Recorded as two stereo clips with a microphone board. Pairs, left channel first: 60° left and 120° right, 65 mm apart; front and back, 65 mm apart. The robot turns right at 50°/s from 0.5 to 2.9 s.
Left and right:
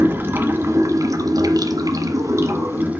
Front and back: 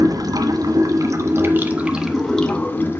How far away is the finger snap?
No finger snap in this recording.